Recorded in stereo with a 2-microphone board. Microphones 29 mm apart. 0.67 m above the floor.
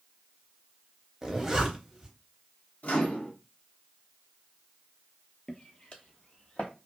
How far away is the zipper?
About 0.7 m.